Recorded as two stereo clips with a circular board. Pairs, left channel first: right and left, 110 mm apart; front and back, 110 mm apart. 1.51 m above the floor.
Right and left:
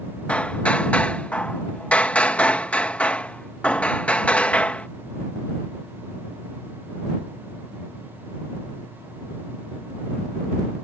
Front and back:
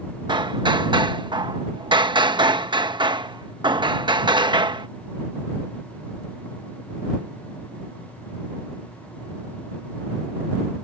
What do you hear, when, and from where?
0.3 s hammering: 165° right